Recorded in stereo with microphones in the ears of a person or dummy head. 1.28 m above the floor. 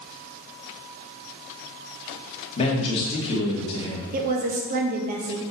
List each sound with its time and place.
2.6 s a man speaking: 25° left (ahead or behind), 2.5 m
4.1 s a woman speaking: 50° right (ahead or behind), 1.3 m